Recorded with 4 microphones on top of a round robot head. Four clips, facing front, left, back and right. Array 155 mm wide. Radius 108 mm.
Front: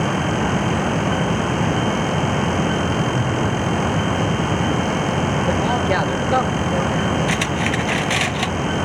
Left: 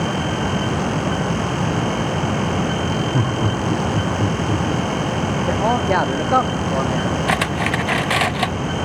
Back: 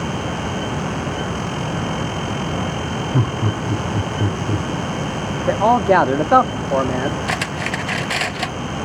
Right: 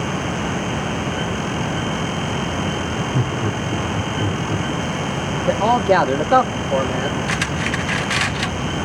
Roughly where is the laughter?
Behind left.